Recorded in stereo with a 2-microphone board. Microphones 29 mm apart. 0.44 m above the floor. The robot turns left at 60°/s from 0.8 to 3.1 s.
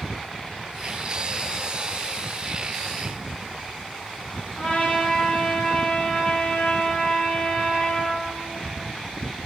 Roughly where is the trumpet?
Left.